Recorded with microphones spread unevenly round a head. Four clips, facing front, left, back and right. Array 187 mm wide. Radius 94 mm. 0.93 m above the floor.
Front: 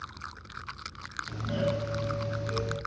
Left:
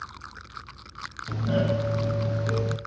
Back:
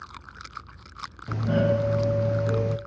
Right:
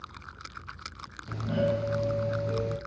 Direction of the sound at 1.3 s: 155° left.